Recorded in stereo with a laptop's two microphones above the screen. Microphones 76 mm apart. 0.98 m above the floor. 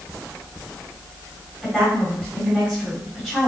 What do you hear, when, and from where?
1.6 s a woman speaking: 5° right (ahead or behind), 3.5 m